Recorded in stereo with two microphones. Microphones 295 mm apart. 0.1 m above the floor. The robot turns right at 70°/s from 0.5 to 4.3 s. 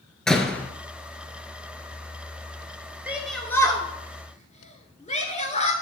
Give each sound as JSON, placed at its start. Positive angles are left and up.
{"t": 0.3, "sound": "a door slam", "side_deg": 0, "distance_m": 0.9}
{"t": 3.1, "sound": "a shout", "side_deg": -5, "distance_m": 1.2}